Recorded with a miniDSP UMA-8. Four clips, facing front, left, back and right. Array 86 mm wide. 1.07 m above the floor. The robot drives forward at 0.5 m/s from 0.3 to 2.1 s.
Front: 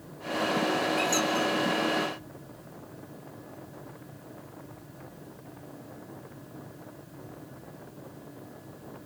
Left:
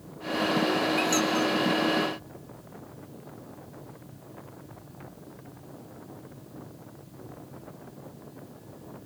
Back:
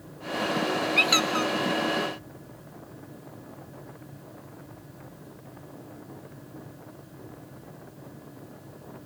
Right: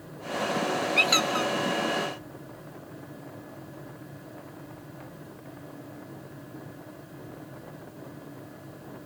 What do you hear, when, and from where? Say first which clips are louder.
1.0 s a squeak: left 1 dB, back 1 dB; 145° right, 0.7 m; by 1.5 s 155° right, 0.9 m